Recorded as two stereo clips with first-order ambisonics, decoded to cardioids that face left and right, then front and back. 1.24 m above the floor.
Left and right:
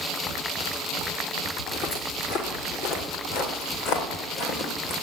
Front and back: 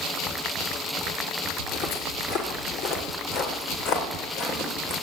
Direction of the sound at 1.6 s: 60° left.